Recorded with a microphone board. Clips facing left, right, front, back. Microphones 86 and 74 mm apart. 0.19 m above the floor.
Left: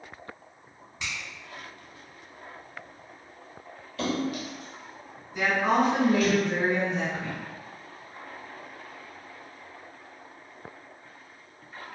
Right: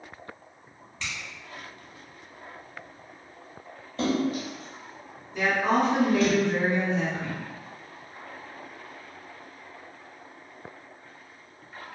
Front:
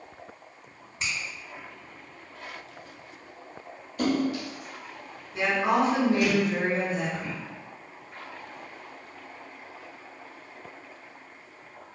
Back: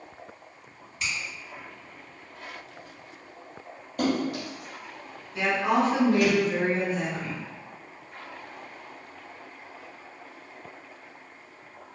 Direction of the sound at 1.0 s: 25° left.